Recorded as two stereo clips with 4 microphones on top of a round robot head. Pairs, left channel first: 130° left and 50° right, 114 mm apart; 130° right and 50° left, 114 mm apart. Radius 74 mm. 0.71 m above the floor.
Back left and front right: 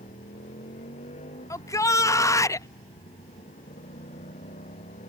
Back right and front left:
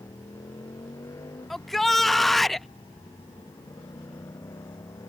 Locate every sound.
0.0 s a motorcycle: 165° left
1.5 s a shout: 140° left